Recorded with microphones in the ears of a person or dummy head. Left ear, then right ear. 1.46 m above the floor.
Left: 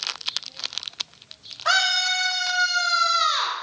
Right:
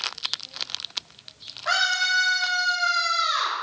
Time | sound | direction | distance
1.6 | a scream | 50° left (ahead or behind) | 1.1 m